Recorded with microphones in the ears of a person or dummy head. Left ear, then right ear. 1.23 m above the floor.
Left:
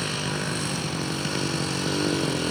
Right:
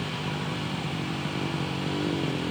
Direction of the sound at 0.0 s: 70° left (ahead or behind).